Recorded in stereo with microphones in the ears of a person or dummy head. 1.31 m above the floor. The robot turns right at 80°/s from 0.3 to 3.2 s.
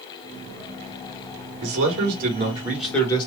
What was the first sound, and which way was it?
A man speaking, 100° right.